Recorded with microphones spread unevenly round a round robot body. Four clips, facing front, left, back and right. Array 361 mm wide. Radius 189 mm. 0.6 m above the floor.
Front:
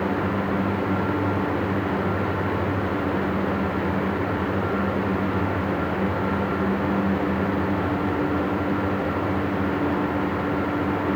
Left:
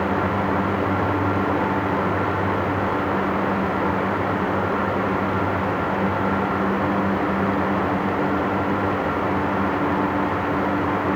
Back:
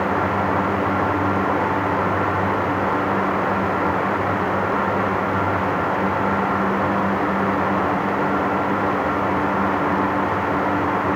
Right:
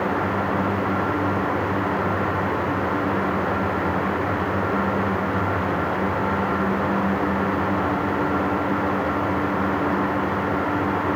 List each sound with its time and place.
Only background noise.